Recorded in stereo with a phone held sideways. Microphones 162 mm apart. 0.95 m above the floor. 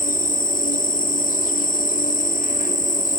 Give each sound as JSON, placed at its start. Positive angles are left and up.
{"t": 0.0, "sound": "an insect", "side_deg": 55, "distance_m": 0.8}